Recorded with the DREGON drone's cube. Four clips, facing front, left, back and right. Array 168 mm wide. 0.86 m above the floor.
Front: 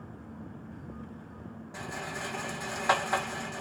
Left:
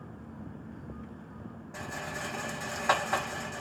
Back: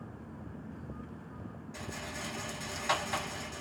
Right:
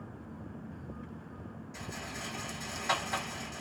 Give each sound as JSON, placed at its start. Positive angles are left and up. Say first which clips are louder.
{"t": 1.7, "sound": "a rattle", "louder": "left 6 dB, front 5 dB", "azimuth_deg": 40, "distance_m": 0.6}